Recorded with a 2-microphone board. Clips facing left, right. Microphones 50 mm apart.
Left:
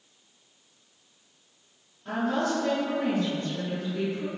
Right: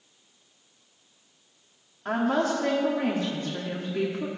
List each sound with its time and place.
2.0 s a woman speaking: 65° right (ahead or behind), 2.0 m